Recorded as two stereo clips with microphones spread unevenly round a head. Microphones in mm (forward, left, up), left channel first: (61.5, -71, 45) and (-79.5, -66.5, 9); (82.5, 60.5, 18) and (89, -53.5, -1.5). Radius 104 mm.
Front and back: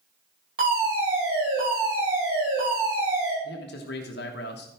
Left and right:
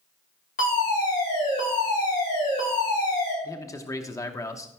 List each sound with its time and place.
0.6 s a fire alarm: 125° left, 5 m
3.4 s a man speaking: 30° left, 1.0 m